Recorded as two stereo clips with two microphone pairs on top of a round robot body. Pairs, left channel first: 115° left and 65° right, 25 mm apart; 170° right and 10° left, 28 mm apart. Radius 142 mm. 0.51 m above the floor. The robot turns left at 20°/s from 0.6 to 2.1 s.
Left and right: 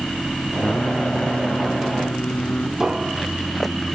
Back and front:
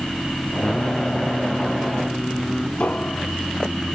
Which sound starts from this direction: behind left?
Singing, at 0.6 s.